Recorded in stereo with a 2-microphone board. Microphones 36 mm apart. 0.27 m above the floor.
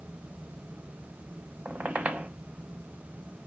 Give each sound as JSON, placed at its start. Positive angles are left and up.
{"t": 1.6, "sound": "a squeak", "side_deg": -50, "distance_m": 0.6}